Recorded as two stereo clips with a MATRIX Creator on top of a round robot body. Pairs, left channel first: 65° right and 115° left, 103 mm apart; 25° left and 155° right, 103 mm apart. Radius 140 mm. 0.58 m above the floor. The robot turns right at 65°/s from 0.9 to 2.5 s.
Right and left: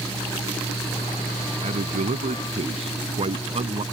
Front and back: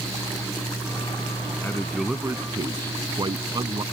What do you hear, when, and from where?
1.6 s a man speaking: 90° left; by 3.8 s 145° left